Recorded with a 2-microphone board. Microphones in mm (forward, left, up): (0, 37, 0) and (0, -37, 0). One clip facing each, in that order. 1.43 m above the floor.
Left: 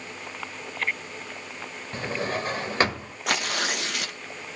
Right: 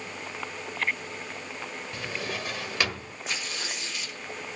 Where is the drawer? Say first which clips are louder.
Left 7 dB; 35° left (ahead or behind), 1.5 m.